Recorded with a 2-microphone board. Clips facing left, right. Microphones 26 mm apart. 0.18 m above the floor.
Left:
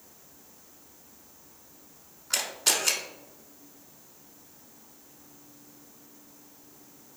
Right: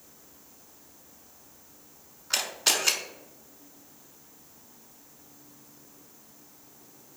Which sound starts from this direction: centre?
A camera shutter, at 2.3 s.